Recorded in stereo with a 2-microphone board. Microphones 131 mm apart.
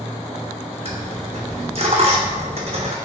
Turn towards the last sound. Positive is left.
turn(degrees=-50)  # may be behind; listen again after turning